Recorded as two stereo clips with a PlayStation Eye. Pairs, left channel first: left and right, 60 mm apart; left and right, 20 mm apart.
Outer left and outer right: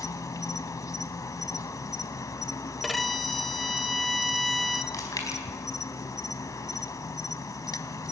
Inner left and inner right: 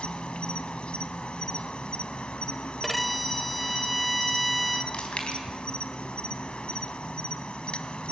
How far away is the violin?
About 1.0 m.